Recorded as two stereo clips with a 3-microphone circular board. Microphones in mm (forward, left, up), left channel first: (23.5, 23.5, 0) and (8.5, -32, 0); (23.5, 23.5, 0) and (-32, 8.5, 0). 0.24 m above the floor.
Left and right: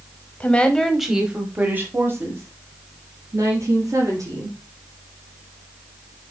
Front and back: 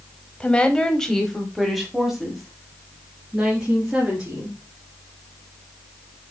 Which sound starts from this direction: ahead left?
A woman speaking, at 0.4 s.